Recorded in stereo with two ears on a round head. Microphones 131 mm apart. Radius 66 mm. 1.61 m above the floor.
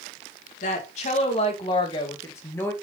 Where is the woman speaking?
50° left (ahead or behind), 2.5 m; by 2.7 s 10° left (ahead or behind), 2 m.